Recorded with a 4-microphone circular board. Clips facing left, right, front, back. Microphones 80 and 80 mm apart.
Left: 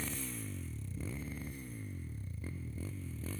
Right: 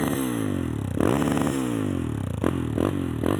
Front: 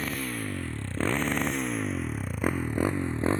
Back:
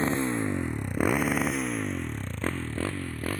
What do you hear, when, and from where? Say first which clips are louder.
0.0 s a motorcycle: right 19 dB, back 6 dB; 120° right; by 3.4 s 65° right